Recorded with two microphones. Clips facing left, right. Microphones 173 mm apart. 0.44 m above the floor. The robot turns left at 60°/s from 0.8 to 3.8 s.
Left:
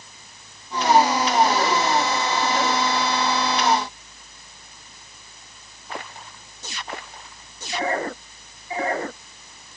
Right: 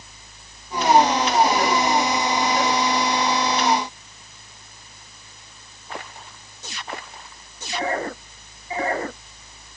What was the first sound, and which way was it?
Only background noise.